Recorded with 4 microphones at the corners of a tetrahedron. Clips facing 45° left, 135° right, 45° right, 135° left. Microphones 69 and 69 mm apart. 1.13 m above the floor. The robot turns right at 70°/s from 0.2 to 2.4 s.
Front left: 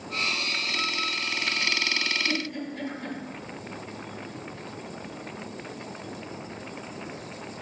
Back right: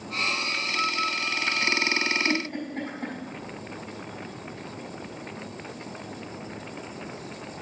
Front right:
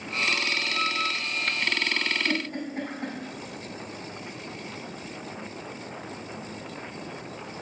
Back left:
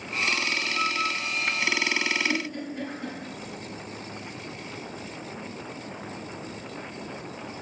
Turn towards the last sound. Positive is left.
turn(degrees=-85)